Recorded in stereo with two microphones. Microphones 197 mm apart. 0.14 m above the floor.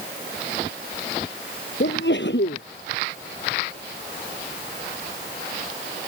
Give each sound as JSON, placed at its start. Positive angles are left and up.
{"t": 1.8, "sound": "a sneeze", "side_deg": 65}